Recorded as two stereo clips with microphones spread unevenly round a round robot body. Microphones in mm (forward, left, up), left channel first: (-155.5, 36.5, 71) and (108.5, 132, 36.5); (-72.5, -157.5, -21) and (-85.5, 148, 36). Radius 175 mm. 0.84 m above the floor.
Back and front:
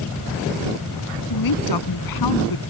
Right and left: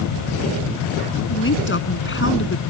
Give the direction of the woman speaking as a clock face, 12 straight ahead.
5 o'clock.